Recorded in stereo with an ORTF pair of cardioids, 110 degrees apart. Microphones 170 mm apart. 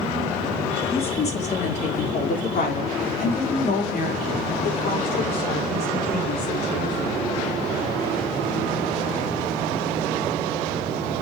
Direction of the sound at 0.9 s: 35° left.